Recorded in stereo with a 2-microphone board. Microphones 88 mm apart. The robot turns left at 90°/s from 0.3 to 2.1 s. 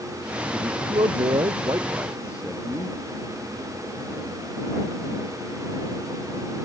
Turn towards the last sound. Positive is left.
turn(degrees=-170)